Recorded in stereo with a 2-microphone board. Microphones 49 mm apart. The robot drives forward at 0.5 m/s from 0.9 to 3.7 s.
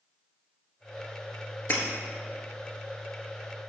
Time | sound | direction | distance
1.7 | breaking glass | 40° left (ahead or behind) | 1.3 m